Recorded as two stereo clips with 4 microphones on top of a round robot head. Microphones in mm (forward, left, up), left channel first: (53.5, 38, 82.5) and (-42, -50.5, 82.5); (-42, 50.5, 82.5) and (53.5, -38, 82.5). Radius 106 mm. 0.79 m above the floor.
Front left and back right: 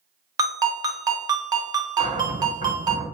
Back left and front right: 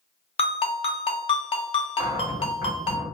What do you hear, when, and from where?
0.4 s a ringtone: 170° left, 0.6 m
2.0 s a cupboard door: 105° right, 1.3 m